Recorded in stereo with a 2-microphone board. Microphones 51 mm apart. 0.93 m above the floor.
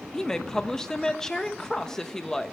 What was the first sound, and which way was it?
A woman speaking, 10° left (ahead or behind).